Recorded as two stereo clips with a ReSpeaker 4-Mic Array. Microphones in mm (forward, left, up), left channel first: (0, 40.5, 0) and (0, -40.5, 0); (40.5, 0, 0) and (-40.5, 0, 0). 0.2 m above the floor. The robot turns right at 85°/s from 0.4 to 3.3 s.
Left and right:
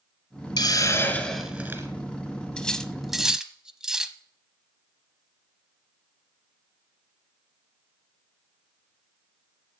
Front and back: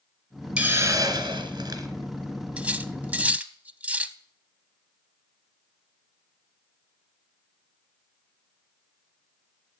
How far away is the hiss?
About 1.5 m.